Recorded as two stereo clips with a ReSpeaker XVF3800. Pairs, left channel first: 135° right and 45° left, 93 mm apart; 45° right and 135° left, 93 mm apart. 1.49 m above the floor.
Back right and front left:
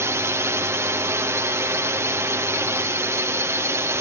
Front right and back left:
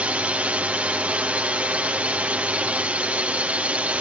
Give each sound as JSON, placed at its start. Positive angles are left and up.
{"t": 0.0, "sound": "a drone", "azimuth_deg": 70}